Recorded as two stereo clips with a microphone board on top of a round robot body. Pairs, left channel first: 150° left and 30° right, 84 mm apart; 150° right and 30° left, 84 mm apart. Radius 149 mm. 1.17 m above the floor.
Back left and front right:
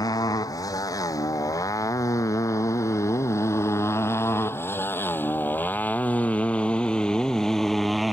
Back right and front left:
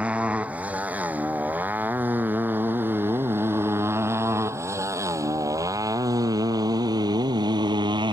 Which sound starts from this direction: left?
A motorcycle, at 0.0 s.